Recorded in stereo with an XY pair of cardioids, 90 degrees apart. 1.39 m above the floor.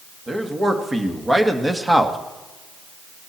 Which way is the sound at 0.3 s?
30° right.